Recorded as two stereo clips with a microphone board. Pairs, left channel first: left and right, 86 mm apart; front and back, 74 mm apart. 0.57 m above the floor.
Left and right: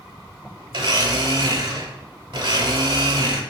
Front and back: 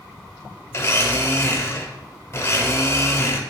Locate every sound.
0.7 s a blender: 55° right, 0.8 m